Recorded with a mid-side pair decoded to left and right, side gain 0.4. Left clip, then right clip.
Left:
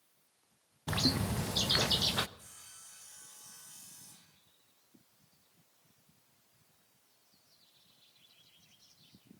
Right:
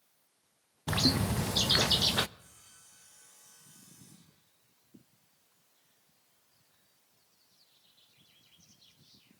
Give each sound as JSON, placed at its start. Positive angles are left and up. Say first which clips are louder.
{"t": 0.9, "sound": "a bird", "louder": "right 3 dB", "azimuth_deg": -25, "distance_m": 0.6}
{"t": 2.4, "sound": "sawing", "louder": "left 4 dB", "azimuth_deg": 55, "distance_m": 8.0}